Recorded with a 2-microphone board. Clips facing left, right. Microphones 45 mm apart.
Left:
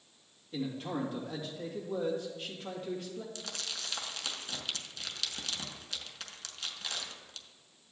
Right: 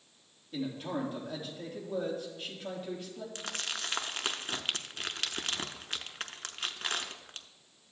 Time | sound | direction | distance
0.5 | a man speaking | 5° right (ahead or behind) | 3 m
3.4 | crumpling | 45° right (ahead or behind) | 0.5 m